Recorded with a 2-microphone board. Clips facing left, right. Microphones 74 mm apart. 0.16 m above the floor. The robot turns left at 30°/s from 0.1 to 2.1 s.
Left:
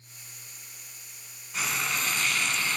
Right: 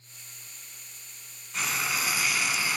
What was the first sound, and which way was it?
Frying, centre (ahead or behind).